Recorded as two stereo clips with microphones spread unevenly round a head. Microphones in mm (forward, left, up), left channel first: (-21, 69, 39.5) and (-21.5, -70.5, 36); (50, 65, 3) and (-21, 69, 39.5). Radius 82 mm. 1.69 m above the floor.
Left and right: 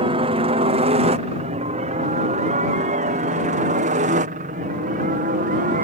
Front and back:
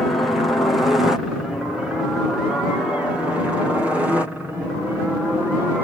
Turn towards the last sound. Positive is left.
turn(degrees=-95)